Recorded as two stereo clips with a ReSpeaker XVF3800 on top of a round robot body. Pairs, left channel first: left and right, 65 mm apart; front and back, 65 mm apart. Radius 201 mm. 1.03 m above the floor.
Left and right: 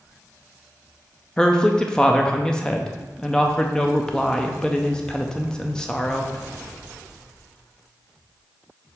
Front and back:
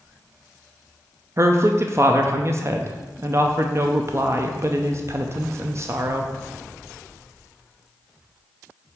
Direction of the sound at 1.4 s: 165° left.